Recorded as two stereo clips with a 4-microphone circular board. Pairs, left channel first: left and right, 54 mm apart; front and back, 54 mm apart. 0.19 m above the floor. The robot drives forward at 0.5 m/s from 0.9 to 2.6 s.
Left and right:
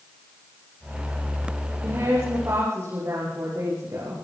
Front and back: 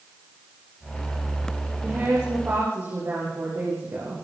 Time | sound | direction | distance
1.8 | a woman speaking | 125° right | 8.5 m